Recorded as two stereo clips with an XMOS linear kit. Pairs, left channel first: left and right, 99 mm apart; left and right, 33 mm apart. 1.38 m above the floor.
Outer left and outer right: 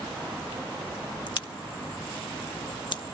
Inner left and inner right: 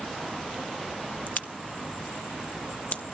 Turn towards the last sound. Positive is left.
turn(degrees=55)  # may be behind; listen again after turning